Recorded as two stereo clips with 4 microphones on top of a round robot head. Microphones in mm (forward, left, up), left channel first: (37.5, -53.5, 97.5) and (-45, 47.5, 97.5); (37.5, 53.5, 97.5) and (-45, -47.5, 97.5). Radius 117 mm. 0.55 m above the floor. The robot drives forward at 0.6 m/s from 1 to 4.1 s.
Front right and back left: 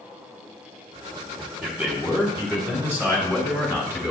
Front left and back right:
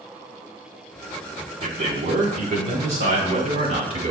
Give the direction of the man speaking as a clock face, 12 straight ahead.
5 o'clock.